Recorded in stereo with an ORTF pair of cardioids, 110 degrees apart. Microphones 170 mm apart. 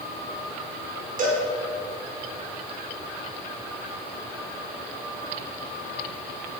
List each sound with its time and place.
1.2 s a cowbell: 55° right, 6.5 m